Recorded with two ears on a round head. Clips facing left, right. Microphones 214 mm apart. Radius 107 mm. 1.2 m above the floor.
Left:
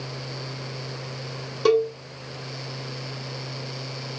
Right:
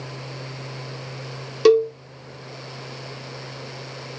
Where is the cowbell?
40° right (ahead or behind), 1.2 m.